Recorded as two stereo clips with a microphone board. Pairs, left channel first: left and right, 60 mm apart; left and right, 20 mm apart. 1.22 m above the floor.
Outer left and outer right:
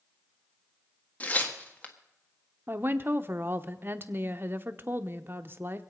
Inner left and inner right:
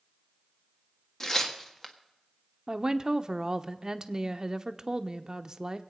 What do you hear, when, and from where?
1.2 s tearing paper: 30° left (ahead or behind), 1.5 m
2.7 s a woman speaking: 40° right (ahead or behind), 0.9 m